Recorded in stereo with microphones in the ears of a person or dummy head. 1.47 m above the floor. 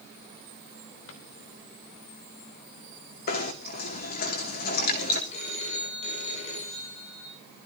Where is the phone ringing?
40° left (ahead or behind), 8.5 m.